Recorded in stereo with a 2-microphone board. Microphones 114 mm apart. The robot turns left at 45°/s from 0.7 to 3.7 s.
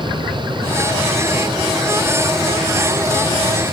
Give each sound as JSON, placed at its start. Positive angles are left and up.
{"t": 0.0, "sound": "an aircraft", "azimuth_deg": 45}